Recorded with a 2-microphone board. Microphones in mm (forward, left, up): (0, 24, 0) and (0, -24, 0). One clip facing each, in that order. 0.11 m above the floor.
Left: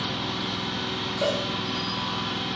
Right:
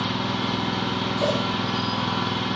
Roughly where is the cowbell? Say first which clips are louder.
Right 1 dB; centre.